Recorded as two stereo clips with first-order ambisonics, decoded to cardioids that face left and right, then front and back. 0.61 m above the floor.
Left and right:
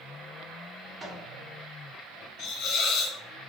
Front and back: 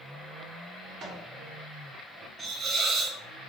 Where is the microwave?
165° right, 0.9 m.